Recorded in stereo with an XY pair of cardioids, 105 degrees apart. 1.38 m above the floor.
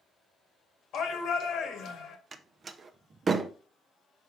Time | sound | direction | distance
0.9 | a shout | 65° left | 2 m
2.3 | a door slam | 40° right | 0.8 m